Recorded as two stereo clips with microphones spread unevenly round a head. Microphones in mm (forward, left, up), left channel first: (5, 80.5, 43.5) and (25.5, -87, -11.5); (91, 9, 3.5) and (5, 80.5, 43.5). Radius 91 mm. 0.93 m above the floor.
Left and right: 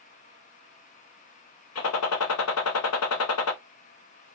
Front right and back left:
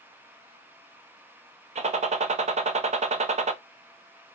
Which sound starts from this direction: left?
A gunshot, at 1.8 s.